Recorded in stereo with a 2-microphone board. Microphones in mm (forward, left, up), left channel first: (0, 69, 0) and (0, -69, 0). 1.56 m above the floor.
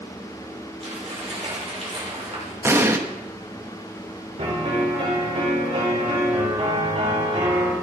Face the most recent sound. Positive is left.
turn(degrees=-50)  # may be behind; listen again after turning